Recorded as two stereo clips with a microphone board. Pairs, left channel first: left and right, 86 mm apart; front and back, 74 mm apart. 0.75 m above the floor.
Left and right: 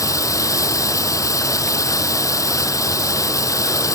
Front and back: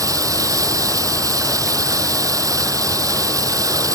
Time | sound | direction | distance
0.0 | running water | 140° left | ?